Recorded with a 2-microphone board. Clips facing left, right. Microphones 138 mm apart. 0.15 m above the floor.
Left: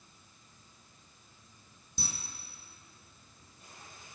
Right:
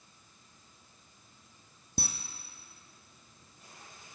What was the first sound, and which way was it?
A camera shutter, 70° right (ahead or behind).